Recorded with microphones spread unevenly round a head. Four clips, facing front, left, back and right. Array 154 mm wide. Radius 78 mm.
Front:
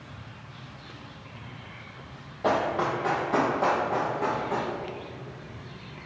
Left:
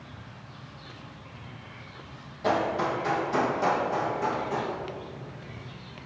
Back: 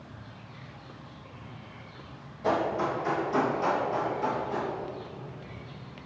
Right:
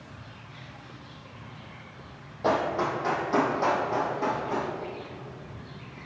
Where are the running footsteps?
30° right, 2 m; by 4.7 s 35° right, 3.5 m.